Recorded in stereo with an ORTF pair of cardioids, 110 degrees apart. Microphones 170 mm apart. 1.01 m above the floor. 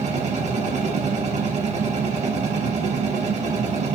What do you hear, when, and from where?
0.0 s a machine running: 40° right, 0.7 m